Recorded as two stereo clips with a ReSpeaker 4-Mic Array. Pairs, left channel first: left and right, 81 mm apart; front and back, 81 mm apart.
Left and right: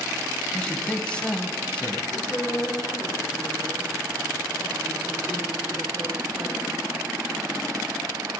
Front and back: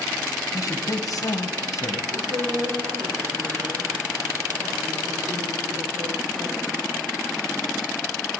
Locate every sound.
0.5 s a man speaking: 15° left, 2.5 m
2.1 s a woman speaking: 175° right, 9 m